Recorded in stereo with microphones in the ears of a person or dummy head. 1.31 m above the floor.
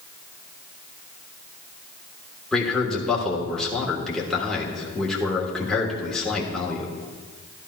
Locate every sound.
2.5 s a man speaking: centre (ahead or behind), 1.3 m